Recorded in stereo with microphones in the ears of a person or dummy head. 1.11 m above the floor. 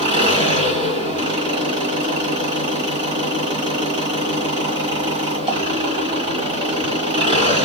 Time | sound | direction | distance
0.0 | an engine running | 30° right (ahead or behind) | 1.6 m